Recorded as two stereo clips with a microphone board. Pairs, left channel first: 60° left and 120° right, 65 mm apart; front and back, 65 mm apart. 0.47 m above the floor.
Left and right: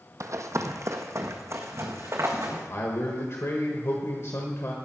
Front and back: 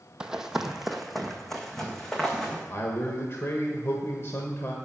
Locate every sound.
0.2 s running footsteps: 105° right, 1.0 m; by 2.6 s 80° right, 2.5 m
2.7 s a man speaking: 35° left, 1.4 m